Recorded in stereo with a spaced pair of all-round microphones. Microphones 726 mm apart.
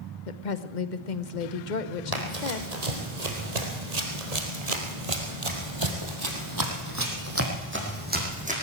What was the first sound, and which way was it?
A woman speaking, 80° left.